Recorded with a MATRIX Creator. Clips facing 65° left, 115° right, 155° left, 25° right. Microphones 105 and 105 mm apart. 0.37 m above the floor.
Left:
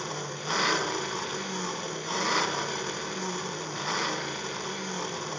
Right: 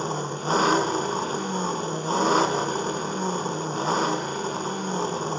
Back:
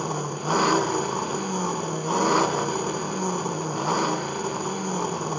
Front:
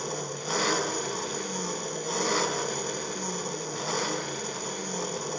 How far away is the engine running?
About 1.2 m.